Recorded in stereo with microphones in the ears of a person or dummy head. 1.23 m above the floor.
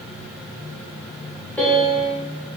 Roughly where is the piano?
Centre.